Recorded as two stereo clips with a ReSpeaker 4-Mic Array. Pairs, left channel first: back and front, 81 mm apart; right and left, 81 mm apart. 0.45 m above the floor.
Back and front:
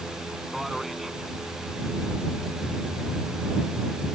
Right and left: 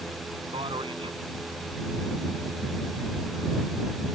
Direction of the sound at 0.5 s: 90° left.